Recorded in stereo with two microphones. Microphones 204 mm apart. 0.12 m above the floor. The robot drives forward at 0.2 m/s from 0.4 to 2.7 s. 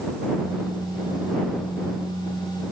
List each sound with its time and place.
Only background noise.